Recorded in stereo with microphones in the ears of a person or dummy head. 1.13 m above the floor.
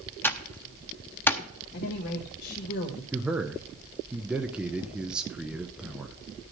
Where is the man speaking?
5° right (ahead or behind), 0.7 m.